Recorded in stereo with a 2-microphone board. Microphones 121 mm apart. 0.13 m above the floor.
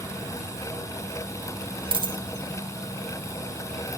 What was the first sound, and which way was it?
A dropped coin, 45° right (ahead or behind).